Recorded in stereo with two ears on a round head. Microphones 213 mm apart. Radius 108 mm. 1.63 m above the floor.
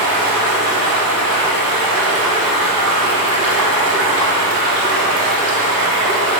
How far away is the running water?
About 3 m.